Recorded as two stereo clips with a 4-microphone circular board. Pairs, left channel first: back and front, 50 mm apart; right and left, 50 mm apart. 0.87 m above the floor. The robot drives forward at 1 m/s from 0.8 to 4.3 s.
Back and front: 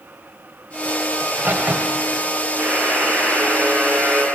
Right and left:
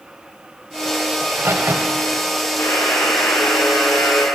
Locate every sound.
1.2 s a crack: 45° left, 2 m; by 2.2 s 70° left, 1.6 m
2.6 s a buzzer: 55° right, 6 m; by 4.2 s 70° right, 5.5 m